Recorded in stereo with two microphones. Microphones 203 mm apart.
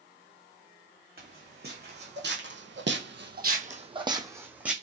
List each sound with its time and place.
1.2 s footsteps: 50° right (ahead or behind), 1.6 m; by 4.7 s 5° right (ahead or behind), 1.1 m